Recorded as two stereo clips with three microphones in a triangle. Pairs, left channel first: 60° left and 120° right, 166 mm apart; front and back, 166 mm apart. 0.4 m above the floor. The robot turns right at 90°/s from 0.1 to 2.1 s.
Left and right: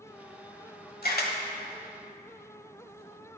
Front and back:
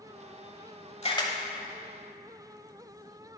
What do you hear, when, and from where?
1.0 s a camera shutter: 50° left, 1.0 m; by 1.3 s 75° left, 1.0 m